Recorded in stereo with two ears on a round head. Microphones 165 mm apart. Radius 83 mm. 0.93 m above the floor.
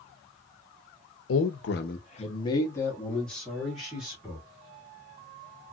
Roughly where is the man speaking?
Left.